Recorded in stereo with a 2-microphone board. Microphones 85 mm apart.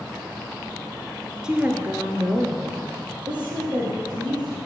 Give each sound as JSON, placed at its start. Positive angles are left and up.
{"t": 1.4, "sound": "a woman speaking", "side_deg": -10, "distance_m": 1.1}